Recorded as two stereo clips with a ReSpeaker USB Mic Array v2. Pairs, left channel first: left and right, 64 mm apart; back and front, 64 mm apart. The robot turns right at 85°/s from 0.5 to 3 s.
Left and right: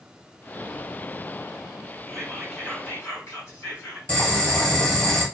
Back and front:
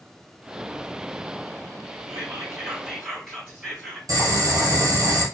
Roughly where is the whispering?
Ahead.